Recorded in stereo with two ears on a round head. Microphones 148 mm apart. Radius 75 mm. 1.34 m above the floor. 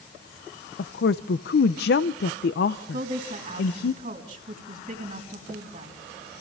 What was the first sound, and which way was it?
A woman speaking, 70° left (ahead or behind).